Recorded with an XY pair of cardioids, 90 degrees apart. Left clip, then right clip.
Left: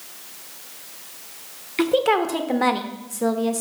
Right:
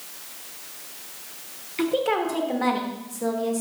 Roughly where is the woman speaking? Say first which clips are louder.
Left 4 dB; ahead left.